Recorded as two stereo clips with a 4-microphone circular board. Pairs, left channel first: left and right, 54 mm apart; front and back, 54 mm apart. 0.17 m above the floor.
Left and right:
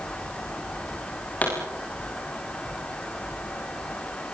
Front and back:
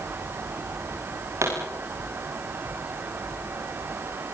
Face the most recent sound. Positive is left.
turn(degrees=150)